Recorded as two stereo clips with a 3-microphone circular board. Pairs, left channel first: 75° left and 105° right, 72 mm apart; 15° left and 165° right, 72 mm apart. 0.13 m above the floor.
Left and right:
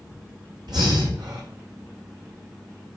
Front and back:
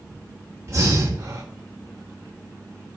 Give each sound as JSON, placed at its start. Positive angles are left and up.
{"t": 0.7, "sound": "breathing", "azimuth_deg": -115, "distance_m": 5.5}